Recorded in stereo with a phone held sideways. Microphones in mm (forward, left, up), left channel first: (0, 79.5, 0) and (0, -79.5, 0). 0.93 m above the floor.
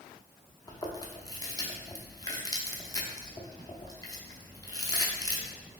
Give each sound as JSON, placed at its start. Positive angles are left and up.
{"t": 0.7, "sound": "chewing", "side_deg": 25, "distance_m": 0.5}